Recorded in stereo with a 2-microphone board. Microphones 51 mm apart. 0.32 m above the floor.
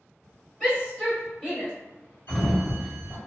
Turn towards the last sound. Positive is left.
turn(degrees=45)  # may be behind; listen again after turning